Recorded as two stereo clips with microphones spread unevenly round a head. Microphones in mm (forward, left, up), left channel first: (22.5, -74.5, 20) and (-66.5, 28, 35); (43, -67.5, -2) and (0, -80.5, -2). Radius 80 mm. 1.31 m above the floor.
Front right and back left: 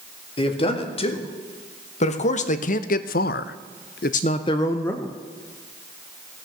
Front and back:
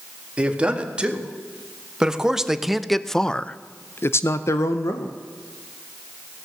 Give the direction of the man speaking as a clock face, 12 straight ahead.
3 o'clock.